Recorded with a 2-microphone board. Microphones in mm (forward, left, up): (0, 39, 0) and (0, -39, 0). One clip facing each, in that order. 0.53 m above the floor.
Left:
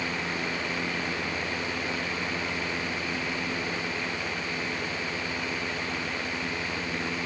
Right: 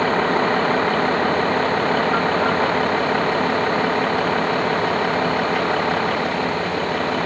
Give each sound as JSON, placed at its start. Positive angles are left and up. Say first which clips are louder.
{"t": 0.0, "sound": "a vehicle", "louder": "right 14 dB", "side_deg": -65}